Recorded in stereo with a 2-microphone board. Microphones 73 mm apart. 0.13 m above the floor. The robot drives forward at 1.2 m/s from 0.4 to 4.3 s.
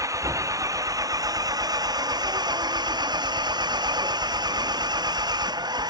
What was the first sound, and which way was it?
An engine running, 50° right (ahead or behind).